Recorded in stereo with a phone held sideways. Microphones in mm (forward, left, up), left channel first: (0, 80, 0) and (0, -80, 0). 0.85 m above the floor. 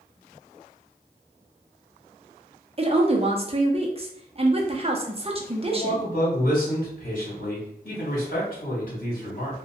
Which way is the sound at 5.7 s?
60° left (ahead or behind).